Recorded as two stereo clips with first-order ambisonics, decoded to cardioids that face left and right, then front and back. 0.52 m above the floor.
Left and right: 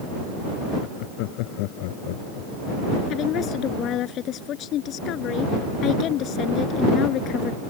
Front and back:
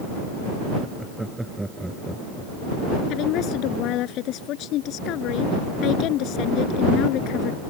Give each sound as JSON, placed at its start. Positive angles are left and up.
{"t": 0.8, "sound": "laughter", "azimuth_deg": 100}
{"t": 3.1, "sound": "a woman speaking", "azimuth_deg": 40}